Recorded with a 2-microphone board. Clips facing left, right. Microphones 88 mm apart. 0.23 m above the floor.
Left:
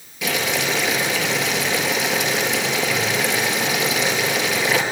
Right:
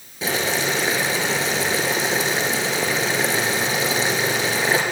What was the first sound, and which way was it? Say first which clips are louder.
Boiling: even; 30° right (ahead or behind).